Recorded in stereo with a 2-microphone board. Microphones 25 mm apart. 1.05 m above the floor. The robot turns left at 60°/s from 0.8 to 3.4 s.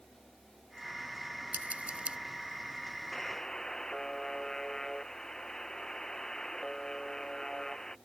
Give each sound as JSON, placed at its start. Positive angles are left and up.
{"t": 1.5, "sound": "scissors", "side_deg": -85}
{"t": 3.1, "sound": "a buzzer", "side_deg": 20}